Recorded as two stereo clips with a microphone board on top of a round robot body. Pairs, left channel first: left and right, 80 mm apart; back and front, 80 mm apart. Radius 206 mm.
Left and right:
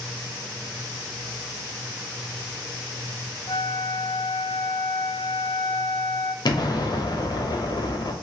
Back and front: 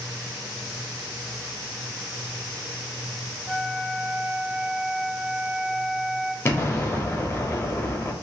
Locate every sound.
3.5 s a flute: 80° left, 0.5 m
6.5 s an explosion: 120° left, 0.8 m